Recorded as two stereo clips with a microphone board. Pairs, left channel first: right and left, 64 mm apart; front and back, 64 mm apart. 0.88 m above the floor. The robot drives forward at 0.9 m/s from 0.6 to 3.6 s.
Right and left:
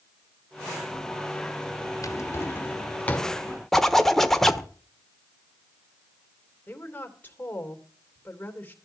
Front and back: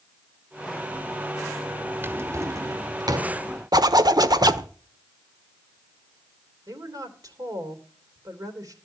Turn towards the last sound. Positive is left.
turn(degrees=-155)